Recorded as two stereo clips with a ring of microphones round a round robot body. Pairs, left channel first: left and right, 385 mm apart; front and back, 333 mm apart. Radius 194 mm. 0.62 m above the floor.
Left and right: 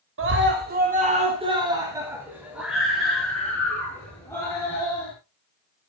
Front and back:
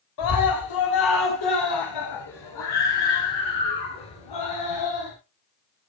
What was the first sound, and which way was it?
A scream, 30° right.